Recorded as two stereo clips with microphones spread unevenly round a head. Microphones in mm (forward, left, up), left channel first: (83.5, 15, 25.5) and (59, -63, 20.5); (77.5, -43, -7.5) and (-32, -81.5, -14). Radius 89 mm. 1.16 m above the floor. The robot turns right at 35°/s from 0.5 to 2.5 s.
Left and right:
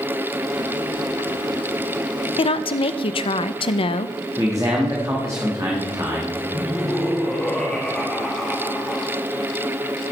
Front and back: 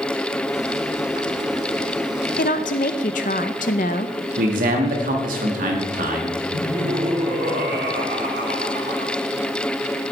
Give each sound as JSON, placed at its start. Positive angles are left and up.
{"t": 2.4, "sound": "a woman speaking", "azimuth_deg": 60, "distance_m": 0.5}
{"t": 4.4, "sound": "a man speaking", "azimuth_deg": 180, "distance_m": 1.8}
{"t": 6.5, "sound": "laughter", "azimuth_deg": 155, "distance_m": 1.9}